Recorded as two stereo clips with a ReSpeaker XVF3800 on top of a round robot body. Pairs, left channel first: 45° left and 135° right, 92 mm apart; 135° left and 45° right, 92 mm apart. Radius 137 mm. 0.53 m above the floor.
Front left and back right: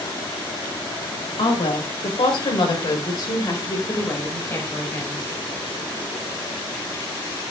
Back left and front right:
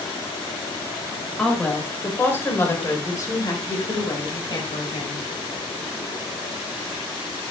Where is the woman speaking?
55° left, 4.5 m; by 5.2 s 115° left, 5 m.